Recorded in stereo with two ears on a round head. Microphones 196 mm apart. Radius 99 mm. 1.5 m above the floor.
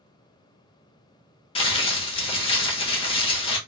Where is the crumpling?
25° left (ahead or behind), 0.9 m.